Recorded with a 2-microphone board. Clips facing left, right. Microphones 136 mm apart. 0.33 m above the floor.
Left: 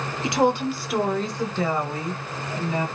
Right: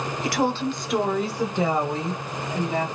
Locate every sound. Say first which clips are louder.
0.2 s a woman speaking: left 3 dB; 25° left (ahead or behind), 0.8 m; by 2.9 s 30° right (ahead or behind), 1.7 m